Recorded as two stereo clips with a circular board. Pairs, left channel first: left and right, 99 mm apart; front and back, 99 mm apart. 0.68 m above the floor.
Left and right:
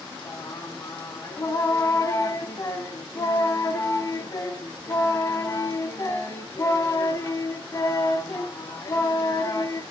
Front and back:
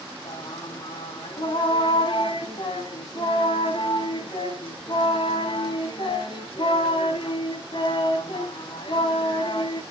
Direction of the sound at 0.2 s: 30° left.